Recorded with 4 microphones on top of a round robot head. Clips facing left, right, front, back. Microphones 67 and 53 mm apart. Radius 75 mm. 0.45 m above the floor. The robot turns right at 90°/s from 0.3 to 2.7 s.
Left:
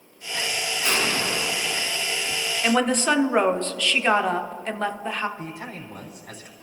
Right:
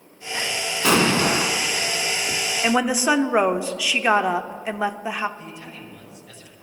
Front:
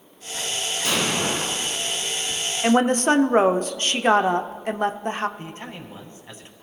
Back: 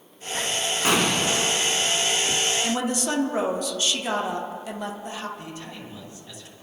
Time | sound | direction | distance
0.8 | an explosion | 115° right | 1.1 m
2.6 | a woman speaking | 15° right | 0.9 m
5.4 | a man speaking | 50° left | 3.5 m